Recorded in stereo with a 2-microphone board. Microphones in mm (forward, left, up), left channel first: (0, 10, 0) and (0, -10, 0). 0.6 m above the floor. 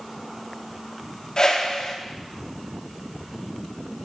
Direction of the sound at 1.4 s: 40° left (ahead or behind).